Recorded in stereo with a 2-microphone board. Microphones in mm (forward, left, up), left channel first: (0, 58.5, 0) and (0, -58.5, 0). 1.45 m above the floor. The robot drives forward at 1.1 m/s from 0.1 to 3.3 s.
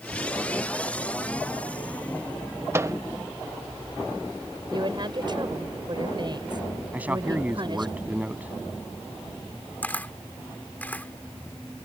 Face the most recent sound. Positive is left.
turn(degrees=15)  # may be behind; listen again after turning